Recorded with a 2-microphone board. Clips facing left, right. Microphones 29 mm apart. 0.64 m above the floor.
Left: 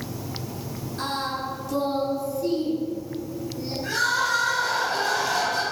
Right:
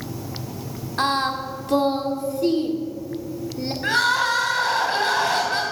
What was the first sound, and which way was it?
Singing, 60° right (ahead or behind).